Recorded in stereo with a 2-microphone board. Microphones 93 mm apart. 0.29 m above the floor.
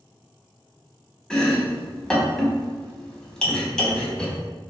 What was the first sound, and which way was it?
Chopping, 10° left (ahead or behind).